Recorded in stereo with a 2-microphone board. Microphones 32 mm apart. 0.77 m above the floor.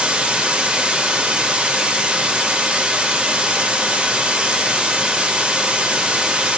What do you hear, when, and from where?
0.0 s running water: 35° right (ahead or behind), 0.7 m